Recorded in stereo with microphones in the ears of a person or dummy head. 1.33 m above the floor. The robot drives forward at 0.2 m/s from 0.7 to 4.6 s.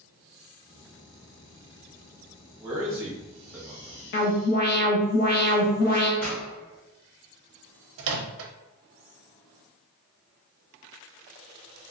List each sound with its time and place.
2.6 s a man speaking: 10° right (ahead or behind), 1.1 m
4.1 s an alarm: 55° left (ahead or behind), 0.8 m; by 6.1 s 50° left (ahead or behind), 0.8 m
6.2 s a pop: 10° left (ahead or behind), 1.4 m
8.0 s a microwave: 70° right (ahead or behind), 0.6 m